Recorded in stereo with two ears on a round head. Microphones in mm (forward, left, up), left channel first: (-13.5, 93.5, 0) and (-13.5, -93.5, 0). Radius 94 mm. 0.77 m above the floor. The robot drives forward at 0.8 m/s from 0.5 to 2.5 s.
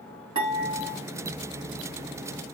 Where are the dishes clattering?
20° right (ahead or behind), 6.5 m; by 1.0 s 25° right (ahead or behind), 6 m.